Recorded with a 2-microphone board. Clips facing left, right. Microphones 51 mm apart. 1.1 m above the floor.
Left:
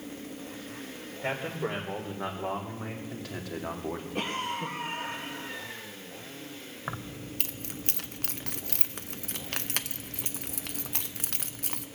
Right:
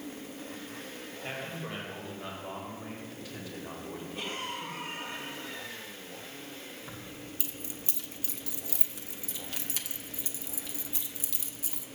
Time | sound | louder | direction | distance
1.2 | a man speaking | left 7 dB | 85° left | 3.5 m
4.2 | a cough | left 5 dB | 70° left (ahead or behind) | 1.9 m
6.9 | keys jangling | left 5 dB | 65° left (ahead or behind) | 0.6 m